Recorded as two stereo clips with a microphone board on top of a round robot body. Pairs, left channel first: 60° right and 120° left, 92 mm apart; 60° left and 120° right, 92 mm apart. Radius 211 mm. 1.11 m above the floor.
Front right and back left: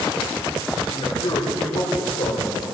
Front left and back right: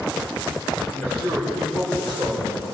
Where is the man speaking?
15° right, 6.5 m; by 2.6 s 35° right, 6.5 m.